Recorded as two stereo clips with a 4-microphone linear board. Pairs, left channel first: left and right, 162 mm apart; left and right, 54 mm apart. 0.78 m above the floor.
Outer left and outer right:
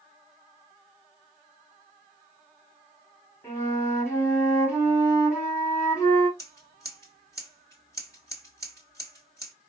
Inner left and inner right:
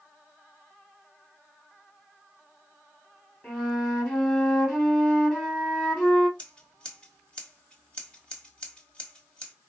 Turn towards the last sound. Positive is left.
turn(degrees=20)  # may be behind; listen again after turning